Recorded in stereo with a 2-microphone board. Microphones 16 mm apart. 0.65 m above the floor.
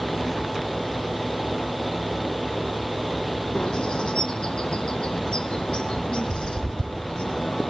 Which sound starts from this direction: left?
A bird, at 3.5 s.